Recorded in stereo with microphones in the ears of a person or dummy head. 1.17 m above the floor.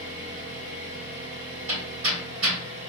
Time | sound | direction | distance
0.0 | an engine running | 50° right (ahead or behind) | 1.8 m
1.7 | hammering | 70° right (ahead or behind) | 2 m